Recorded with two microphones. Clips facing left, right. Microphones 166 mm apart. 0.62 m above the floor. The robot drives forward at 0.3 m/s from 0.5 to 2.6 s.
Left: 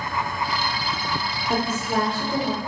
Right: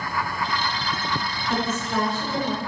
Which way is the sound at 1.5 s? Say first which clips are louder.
Left 2 dB; 35° left (ahead or behind).